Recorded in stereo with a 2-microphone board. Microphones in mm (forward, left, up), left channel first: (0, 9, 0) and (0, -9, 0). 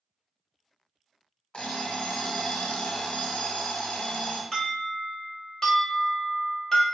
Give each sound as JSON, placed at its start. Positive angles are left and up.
{"t": 1.5, "sound": "an alarm clock", "side_deg": 55, "distance_m": 0.6}
{"t": 4.5, "sound": "an alarm", "side_deg": 15, "distance_m": 1.1}